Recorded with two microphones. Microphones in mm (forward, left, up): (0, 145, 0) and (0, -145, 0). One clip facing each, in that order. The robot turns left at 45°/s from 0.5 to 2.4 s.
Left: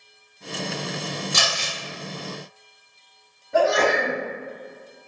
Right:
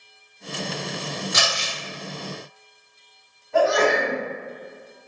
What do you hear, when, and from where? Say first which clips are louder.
1.3 s crumpling: right 1 dB; 40° left (ahead or behind), 1.8 m; by 1.7 s 50° left (ahead or behind), 1.8 m
3.5 s a sneeze: right 1 dB; 40° left (ahead or behind), 1.9 m